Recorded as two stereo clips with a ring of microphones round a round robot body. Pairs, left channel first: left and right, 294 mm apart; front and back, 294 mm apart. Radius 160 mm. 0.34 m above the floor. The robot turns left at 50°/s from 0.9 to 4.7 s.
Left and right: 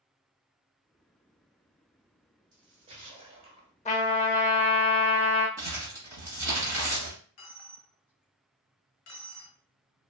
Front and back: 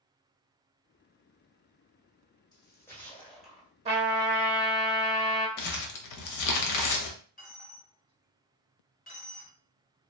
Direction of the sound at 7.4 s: 60° left.